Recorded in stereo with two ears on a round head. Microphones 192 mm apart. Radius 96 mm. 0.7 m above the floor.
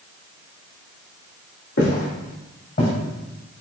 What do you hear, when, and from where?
1.8 s footsteps: 65° left (ahead or behind), 1.6 m; by 2.9 s 40° left (ahead or behind), 1.5 m